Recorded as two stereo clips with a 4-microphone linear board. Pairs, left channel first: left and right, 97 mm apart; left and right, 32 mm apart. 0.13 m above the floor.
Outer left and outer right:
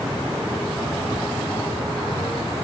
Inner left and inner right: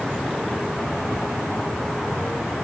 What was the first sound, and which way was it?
Only background noise.